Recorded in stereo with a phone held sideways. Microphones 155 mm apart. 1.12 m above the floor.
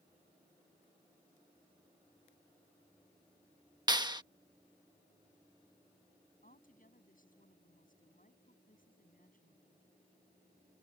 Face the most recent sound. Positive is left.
turn(degrees=60)  # may be behind; listen again after turning